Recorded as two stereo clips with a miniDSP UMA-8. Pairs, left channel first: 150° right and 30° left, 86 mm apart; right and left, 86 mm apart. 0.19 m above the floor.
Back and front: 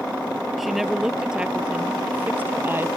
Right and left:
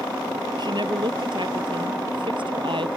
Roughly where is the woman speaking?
Behind left.